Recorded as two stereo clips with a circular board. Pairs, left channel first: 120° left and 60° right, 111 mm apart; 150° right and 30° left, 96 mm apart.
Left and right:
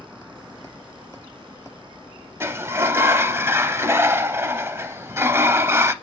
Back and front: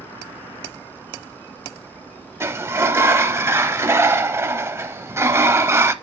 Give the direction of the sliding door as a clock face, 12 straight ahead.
12 o'clock.